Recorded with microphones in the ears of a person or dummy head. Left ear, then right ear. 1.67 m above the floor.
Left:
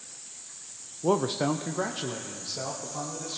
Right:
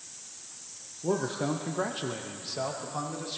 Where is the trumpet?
No trumpet in this recording.